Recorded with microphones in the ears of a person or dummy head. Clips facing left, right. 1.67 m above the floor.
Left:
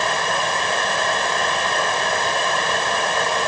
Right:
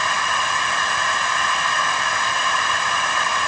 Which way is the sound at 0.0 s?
35° left (ahead or behind).